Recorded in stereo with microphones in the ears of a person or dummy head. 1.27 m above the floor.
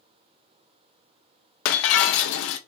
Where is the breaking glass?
50° left (ahead or behind), 0.5 m.